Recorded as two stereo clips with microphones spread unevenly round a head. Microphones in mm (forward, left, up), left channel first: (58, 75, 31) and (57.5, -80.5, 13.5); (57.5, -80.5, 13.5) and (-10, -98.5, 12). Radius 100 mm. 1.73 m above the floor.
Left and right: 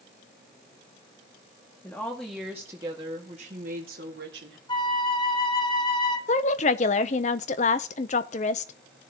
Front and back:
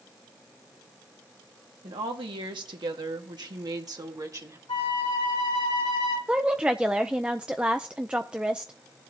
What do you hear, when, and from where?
1.8 s a woman speaking: 170° left, 2.0 m; by 4.6 s 125° right, 2.5 m
4.7 s a flute: 30° left, 1.9 m
6.3 s a woman speaking: 115° left, 0.6 m